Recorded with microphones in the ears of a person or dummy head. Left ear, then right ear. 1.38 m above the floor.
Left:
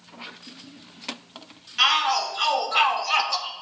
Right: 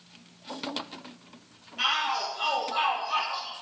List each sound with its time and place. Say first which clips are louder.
1.8 s a shout: left 7 dB; 55° left (ahead or behind), 3 m; by 3.5 s 80° left, 1.5 m